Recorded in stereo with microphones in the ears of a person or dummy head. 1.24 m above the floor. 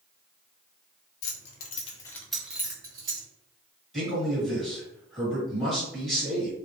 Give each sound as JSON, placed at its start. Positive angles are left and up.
{"t": 1.2, "sound": "keys jangling", "side_deg": 70, "distance_m": 0.6}
{"t": 3.9, "sound": "a man speaking", "side_deg": 0, "distance_m": 1.5}